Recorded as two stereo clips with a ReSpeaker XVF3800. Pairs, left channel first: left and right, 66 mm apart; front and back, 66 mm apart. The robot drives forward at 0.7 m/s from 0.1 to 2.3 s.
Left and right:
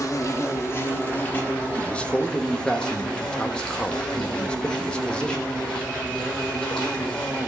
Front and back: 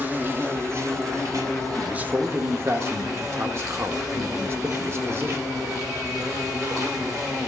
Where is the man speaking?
115° left, 0.6 m; by 5.4 s 160° left, 0.7 m.